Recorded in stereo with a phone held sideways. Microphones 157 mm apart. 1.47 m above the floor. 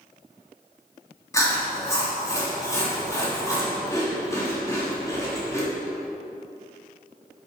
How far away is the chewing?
About 3 m.